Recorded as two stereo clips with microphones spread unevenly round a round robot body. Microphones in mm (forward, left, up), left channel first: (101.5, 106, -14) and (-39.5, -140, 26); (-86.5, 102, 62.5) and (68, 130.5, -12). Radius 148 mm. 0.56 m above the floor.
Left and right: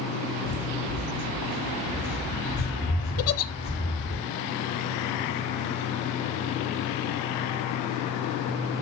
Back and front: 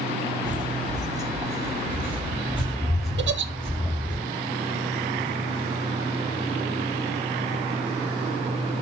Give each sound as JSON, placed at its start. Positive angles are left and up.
{"t": 0.4, "sound": "footsteps", "azimuth_deg": 75, "distance_m": 3.0}
{"t": 3.2, "sound": "a giggle", "azimuth_deg": 20, "distance_m": 0.7}